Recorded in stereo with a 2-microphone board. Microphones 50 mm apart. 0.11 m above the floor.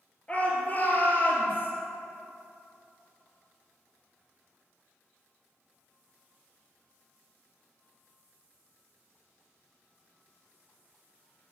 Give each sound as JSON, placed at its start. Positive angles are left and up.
{"t": 0.3, "sound": "a shout", "side_deg": 25, "distance_m": 2.5}